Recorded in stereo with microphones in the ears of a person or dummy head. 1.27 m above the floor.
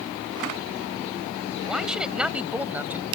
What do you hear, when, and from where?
1.6 s a man speaking: centre (ahead or behind); by 3.0 s 5° right (ahead or behind)